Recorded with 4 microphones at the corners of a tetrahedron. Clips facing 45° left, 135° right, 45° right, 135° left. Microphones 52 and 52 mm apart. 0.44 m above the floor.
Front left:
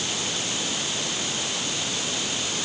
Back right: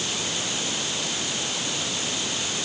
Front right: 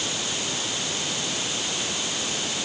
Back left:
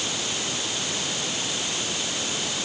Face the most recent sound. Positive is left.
No sound to turn to.